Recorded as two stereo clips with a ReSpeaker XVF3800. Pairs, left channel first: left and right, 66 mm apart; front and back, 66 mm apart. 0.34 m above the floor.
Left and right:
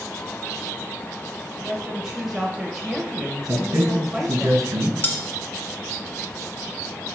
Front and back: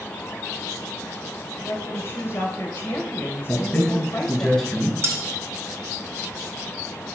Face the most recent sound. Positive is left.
turn(degrees=140)